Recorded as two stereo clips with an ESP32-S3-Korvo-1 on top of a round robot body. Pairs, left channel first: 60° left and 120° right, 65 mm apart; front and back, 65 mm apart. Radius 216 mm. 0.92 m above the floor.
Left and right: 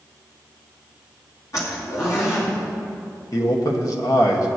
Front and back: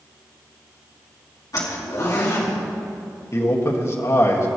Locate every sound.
1.5 s a zipper: 25° left, 2.5 m
3.3 s a man speaking: 40° left, 1.8 m